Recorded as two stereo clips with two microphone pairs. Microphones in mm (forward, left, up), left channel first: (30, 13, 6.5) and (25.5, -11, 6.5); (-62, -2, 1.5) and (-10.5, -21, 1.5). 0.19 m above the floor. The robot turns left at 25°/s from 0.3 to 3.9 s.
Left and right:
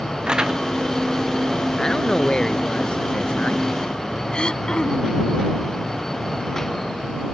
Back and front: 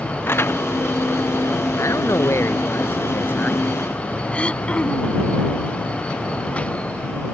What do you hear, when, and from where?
0.3 s crumpling: 155° right; by 0.6 s 160° right
1.8 s a man speaking: 145° left; by 4.2 s 95° left
4.3 s throat clearing: 105° left